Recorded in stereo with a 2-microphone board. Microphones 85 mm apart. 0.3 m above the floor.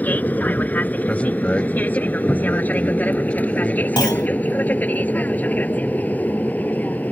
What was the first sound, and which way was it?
An aircraft, 20° left (ahead or behind).